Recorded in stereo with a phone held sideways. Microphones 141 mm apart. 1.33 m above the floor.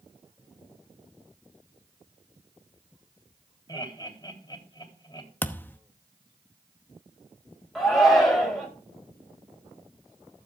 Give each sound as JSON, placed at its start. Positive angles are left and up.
{"t": 3.7, "sound": "laughter", "side_deg": 30, "distance_m": 3.5}
{"t": 5.4, "sound": "a thud", "side_deg": 15, "distance_m": 0.8}
{"t": 7.8, "sound": "a shout", "side_deg": 0, "distance_m": 6.0}